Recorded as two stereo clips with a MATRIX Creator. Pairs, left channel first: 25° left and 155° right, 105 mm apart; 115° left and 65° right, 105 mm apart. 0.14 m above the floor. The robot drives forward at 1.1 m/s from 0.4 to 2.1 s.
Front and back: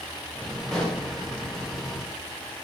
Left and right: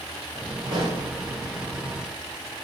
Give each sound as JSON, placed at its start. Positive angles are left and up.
{"t": 0.7, "sound": "a pop", "azimuth_deg": -65, "distance_m": 4.0}